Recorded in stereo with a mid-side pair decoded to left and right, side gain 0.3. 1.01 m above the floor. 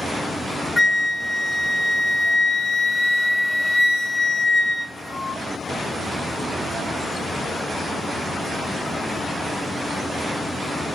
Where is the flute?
35° left, 1.2 m.